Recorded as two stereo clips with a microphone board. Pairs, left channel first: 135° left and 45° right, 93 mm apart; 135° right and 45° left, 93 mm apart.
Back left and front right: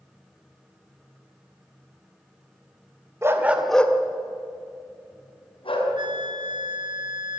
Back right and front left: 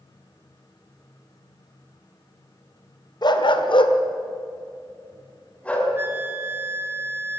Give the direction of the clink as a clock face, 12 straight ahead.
No clink in this recording.